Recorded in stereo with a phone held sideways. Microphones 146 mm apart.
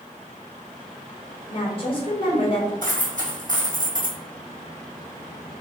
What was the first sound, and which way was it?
A woman speaking, 35° left (ahead or behind).